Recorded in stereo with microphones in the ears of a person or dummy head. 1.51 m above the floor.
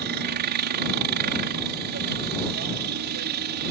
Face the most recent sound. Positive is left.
turn(degrees=-55)  # may be behind; listen again after turning